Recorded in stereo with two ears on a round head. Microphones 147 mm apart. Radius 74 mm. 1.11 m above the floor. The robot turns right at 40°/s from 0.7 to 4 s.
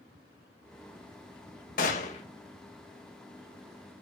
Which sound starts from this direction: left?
A gunshot, at 1.8 s.